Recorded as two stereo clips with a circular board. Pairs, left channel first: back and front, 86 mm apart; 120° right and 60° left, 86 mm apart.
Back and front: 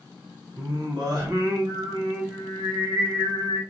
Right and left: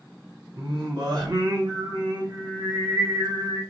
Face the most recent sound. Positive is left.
turn(degrees=35)